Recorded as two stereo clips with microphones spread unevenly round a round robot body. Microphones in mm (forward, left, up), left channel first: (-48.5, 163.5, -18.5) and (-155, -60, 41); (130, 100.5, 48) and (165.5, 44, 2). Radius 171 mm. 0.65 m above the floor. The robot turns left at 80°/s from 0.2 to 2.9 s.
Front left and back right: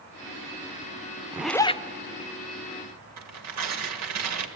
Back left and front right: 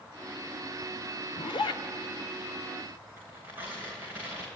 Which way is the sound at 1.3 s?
165° left.